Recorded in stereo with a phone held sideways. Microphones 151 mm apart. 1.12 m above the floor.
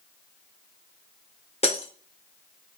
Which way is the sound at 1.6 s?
45° left (ahead or behind).